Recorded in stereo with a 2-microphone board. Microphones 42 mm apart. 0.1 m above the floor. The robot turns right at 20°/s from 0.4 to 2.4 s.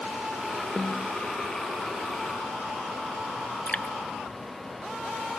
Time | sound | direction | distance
0.8 | a snare drum | 5° right (ahead or behind) | ?
3.7 | dripping | 35° left (ahead or behind) | ?